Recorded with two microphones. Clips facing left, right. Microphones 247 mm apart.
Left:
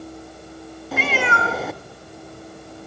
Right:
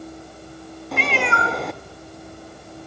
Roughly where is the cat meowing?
Centre.